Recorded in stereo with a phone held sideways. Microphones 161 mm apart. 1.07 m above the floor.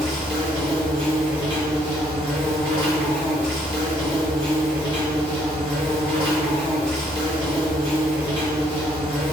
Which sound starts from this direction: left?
An insect, at 0.0 s.